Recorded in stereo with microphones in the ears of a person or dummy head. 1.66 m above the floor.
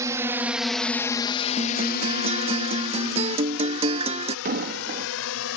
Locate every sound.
0.0 s a drone: 15° right (ahead or behind); by 5.6 s 75° left (ahead or behind)
1.6 s a guitar: 30° right (ahead or behind)
4.5 s an explosion: 50° right (ahead or behind)